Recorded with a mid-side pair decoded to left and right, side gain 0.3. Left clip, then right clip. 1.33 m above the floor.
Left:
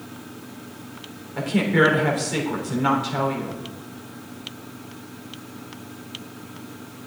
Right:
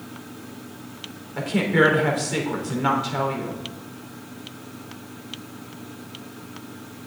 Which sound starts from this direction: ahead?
A woman speaking, at 1.4 s.